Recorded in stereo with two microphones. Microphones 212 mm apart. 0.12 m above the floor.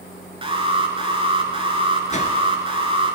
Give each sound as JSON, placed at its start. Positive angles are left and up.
{"t": 0.4, "sound": "an alarm", "side_deg": -25, "distance_m": 0.9}
{"t": 2.1, "sound": "a whoosh", "side_deg": 35, "distance_m": 0.9}